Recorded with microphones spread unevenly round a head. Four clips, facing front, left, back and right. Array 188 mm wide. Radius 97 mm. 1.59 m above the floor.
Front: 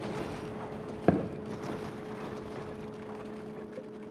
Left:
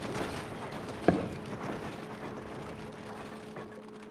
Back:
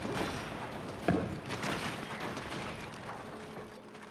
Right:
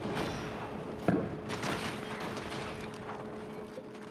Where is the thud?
Straight ahead, 1.0 m.